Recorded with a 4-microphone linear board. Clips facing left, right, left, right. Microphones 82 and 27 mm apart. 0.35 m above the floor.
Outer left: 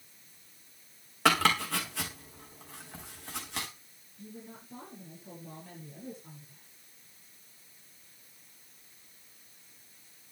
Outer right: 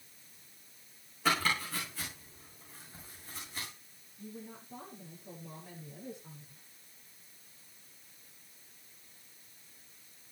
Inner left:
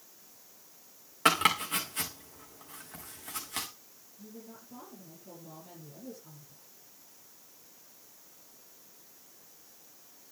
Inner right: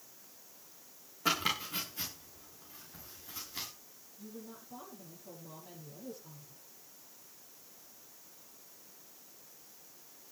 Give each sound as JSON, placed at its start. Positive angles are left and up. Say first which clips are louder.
{"t": 1.2, "sound": "chopping", "louder": "outer left 5 dB, inner left 7 dB", "side_deg": 75, "distance_m": 4.5}
{"t": 4.2, "sound": "a woman speaking", "louder": "even, even", "side_deg": -5, "distance_m": 7.5}